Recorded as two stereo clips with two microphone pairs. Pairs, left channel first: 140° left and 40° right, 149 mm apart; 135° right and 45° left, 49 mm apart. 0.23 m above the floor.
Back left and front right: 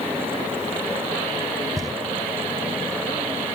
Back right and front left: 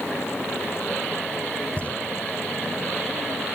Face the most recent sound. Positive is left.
turn(degrees=-90)